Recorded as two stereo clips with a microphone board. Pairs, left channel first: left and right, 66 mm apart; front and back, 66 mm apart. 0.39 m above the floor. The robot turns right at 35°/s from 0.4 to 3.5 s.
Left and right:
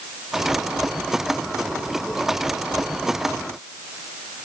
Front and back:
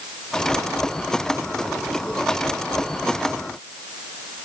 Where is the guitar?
No guitar in this recording.